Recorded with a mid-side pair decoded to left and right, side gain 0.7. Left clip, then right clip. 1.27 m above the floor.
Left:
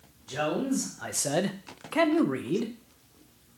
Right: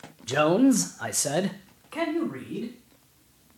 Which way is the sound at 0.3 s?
55° right.